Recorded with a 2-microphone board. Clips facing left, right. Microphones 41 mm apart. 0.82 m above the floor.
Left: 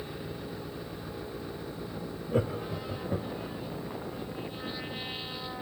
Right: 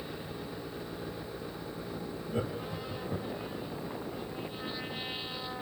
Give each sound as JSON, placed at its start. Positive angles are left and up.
{"t": 2.3, "sound": "laughter", "side_deg": 65, "distance_m": 1.2}